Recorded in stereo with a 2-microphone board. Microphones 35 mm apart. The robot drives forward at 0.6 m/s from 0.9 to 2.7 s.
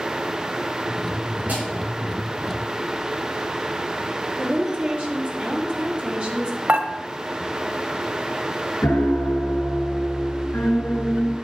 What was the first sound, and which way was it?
A snare drum, 50° right (ahead or behind).